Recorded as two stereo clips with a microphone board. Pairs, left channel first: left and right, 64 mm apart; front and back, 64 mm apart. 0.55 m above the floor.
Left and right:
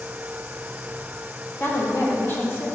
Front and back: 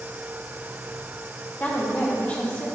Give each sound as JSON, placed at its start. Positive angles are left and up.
{"t": 1.6, "sound": "a woman speaking", "azimuth_deg": 55, "distance_m": 1.7}